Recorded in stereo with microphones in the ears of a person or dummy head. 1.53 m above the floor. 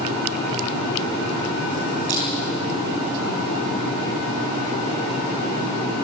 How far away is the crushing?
About 6 m.